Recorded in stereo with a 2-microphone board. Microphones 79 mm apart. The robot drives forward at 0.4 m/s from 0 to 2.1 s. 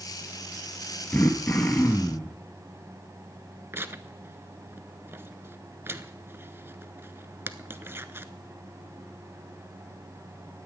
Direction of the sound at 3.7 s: 30° right (ahead or behind).